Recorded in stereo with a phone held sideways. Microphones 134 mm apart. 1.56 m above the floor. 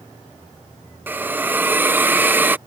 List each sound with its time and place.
1.1 s a hiss: 15° right (ahead or behind)